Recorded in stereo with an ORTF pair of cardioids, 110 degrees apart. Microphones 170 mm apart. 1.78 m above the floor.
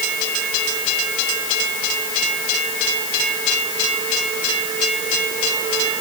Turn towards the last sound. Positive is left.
No sound to turn to.